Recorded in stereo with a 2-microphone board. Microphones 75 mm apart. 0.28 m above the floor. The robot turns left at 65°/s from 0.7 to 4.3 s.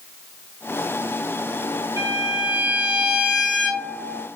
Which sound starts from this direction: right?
A violin, at 2.0 s.